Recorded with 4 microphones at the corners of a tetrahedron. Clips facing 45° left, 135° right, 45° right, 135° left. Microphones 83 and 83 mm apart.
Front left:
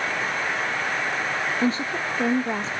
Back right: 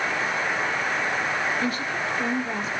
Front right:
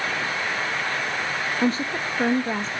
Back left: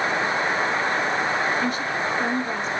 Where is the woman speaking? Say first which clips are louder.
Front left 3 dB, front right 1 dB; 5° right, 1.1 m.